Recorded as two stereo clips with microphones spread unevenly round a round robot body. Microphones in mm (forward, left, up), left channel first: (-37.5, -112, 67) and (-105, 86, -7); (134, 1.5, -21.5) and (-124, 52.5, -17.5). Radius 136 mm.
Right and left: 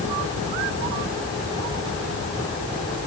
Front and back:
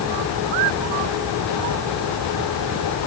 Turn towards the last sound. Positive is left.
No sound to turn to.